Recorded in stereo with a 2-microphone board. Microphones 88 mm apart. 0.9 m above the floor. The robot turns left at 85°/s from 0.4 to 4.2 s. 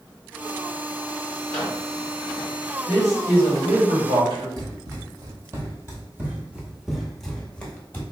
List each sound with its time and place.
1.5 s a microwave: 160° left, 1.4 m; by 1.8 s 130° left, 1.4 m
2.9 s a man speaking: 20° left, 1.8 m; by 4.5 s 95° right, 1.8 m
4.6 s running footsteps: 45° right (ahead or behind), 1.5 m; by 8.0 s 25° left (ahead or behind), 1.0 m